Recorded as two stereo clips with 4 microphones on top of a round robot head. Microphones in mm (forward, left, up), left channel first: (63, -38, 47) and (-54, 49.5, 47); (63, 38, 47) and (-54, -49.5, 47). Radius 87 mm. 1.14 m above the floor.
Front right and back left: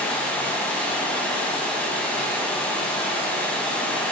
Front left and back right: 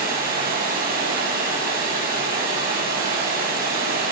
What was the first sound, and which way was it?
Running water, 115° right.